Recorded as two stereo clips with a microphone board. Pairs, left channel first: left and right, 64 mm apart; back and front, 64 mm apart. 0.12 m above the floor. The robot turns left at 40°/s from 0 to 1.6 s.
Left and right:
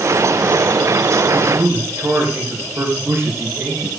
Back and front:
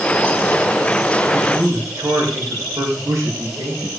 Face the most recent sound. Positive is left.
turn(degrees=-40)